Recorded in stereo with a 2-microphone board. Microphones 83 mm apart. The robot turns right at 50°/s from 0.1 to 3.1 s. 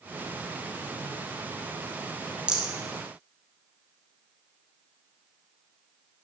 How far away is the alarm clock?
I don't hear an alarm clock.